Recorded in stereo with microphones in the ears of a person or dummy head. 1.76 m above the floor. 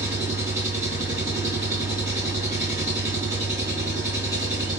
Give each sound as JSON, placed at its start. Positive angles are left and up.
{"t": 0.0, "sound": "an engine running", "side_deg": -15, "distance_m": 0.9}